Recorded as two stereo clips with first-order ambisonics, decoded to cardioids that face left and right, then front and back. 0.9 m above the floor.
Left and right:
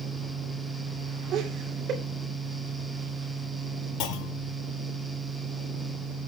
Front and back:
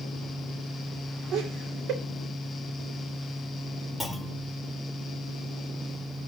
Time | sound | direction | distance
1.3 | laughter | 140° right | 3 m
4.0 | a clunk | 85° left | 1.0 m